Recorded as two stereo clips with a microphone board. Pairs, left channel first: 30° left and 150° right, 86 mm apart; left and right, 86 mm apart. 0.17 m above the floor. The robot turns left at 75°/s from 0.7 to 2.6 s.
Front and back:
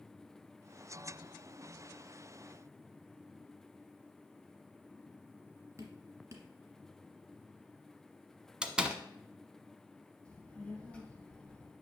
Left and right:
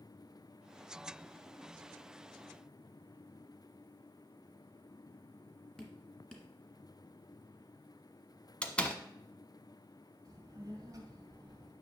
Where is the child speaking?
45° right, 2.0 m.